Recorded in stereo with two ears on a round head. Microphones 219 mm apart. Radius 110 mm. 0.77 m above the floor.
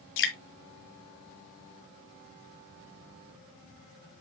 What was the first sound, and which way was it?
Dripping, 55° left (ahead or behind).